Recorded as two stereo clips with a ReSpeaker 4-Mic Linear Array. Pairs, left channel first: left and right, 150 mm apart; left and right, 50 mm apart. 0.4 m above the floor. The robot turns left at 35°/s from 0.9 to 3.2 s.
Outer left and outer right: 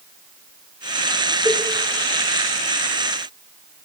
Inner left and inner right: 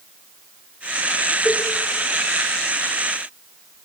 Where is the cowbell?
40° left (ahead or behind), 6 m; by 1.6 s 45° left (ahead or behind), 6 m.